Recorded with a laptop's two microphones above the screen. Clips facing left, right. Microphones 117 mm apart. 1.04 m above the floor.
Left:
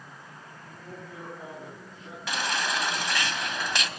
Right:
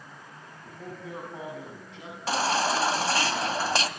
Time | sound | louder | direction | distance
0.6 | a man speaking | right 4 dB | 85° right | 8 m
2.3 | a baby crying | right 5 dB | 35° right (ahead or behind) | 2 m